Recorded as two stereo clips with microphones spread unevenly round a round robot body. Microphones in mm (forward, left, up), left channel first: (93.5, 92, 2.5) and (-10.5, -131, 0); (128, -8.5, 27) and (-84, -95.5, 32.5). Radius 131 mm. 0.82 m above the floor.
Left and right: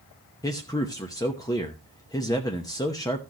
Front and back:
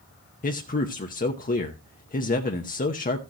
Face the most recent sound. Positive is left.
turn(degrees=-5)